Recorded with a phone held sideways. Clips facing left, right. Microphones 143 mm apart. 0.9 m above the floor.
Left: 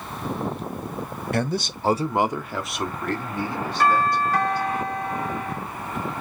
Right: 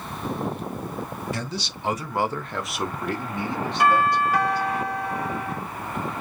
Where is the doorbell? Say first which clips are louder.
Even; 10° right (ahead or behind), 1.7 m.